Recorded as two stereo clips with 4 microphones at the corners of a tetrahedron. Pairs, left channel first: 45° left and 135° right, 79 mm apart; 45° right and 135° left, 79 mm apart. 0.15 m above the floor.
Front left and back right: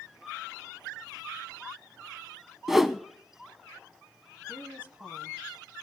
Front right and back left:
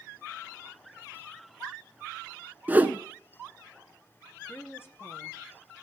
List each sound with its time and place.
2.7 s a whoosh: 145° left, 0.5 m
4.5 s a woman speaking: 80° right, 1.4 m